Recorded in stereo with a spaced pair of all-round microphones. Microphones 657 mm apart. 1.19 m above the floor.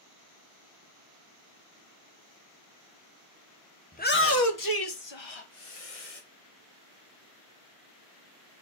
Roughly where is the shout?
Centre.